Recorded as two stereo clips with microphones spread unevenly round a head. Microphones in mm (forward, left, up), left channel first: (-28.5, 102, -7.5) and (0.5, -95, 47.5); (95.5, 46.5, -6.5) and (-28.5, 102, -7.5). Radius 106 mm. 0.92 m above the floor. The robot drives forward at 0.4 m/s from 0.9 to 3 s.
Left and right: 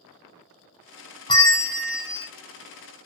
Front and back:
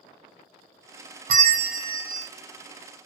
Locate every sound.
1.3 s a bell: 160° left, 0.7 m; by 2.3 s 170° left, 1.0 m